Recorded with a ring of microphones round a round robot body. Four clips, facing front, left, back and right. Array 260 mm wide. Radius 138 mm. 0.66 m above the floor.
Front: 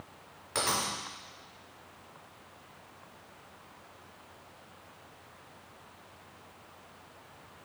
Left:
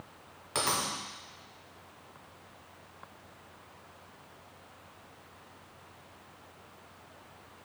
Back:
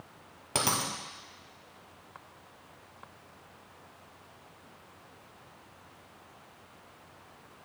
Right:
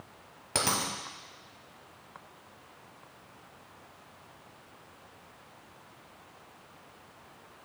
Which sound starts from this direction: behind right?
A dropped coin, at 0.6 s.